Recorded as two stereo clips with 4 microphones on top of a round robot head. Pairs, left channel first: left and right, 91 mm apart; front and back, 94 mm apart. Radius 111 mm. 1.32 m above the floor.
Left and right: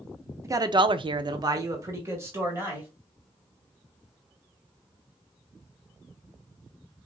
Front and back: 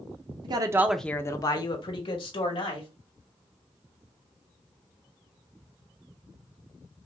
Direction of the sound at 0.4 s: 145° right.